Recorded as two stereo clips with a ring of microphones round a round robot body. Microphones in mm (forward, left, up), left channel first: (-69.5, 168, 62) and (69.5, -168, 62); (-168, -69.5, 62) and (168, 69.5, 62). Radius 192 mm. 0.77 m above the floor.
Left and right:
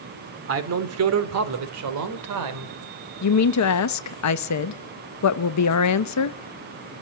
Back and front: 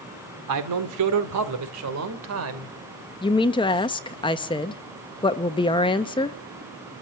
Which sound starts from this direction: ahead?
A man speaking, at 0.5 s.